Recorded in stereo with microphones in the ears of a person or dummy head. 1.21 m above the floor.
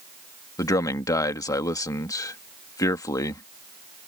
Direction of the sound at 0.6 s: 25° left (ahead or behind).